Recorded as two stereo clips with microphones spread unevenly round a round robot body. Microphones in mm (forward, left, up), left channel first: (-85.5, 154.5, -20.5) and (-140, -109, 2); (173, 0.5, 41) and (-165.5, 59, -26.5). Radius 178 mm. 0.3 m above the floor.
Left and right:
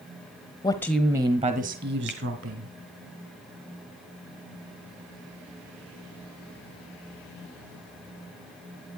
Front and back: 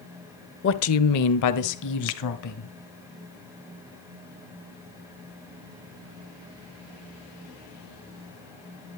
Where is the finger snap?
35° left, 1.0 m.